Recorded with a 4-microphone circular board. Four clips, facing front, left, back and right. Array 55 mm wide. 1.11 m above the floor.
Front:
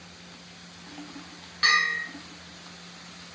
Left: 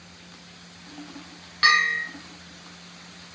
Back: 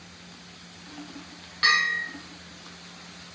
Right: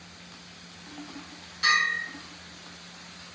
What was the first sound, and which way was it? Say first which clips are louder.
A bell: left 4 dB, even; 95° left.